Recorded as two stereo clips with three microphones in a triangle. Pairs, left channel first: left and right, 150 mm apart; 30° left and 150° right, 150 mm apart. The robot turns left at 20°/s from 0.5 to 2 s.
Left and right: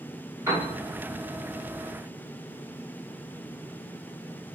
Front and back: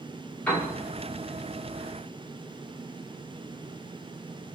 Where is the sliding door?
I don't hear a sliding door.